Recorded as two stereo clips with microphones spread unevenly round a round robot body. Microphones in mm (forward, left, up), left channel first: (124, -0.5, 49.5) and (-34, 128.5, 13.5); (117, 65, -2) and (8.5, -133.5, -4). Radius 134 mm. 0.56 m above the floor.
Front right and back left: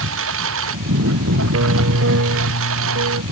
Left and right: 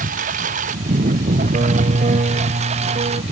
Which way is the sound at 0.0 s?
Straight behind.